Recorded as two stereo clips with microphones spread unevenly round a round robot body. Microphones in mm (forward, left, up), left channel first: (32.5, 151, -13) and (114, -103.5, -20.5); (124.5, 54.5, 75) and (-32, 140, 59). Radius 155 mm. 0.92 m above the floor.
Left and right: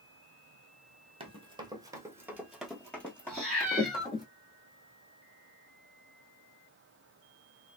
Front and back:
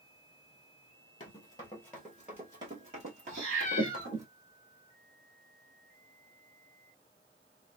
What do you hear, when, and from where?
1.2 s running footsteps: 20° right, 1.0 m; by 4.3 s 175° left, 1.4 m
3.3 s a cat meowing: 165° right, 1.3 m